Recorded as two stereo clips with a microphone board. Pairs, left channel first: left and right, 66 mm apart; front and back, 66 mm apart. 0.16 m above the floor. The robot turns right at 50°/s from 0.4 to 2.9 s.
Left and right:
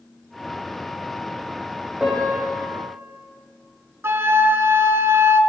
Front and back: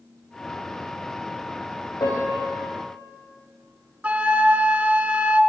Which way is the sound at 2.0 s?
15° right.